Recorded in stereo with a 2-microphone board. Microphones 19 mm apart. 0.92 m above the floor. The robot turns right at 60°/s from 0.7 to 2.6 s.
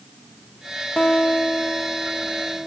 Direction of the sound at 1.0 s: 95° left.